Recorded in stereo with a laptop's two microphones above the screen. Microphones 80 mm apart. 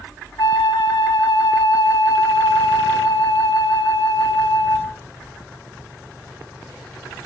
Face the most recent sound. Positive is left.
turn(degrees=65)  # may be behind; listen again after turning